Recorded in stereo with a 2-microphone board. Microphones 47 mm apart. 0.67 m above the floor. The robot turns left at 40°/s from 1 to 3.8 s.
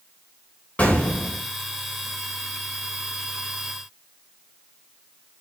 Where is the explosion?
30° left (ahead or behind), 3 m; by 1.4 s 15° left (ahead or behind), 3 m.